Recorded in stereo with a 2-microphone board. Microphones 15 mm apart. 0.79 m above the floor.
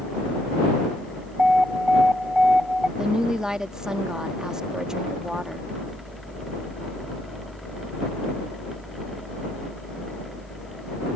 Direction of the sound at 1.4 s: 40° right (ahead or behind).